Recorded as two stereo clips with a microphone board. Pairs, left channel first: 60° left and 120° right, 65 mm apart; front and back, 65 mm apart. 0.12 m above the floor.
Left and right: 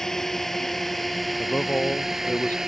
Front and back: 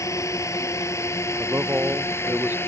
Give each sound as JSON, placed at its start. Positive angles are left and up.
{"t": 0.0, "sound": "a drone", "azimuth_deg": -20}
{"t": 1.4, "sound": "a man speaking", "azimuth_deg": 125}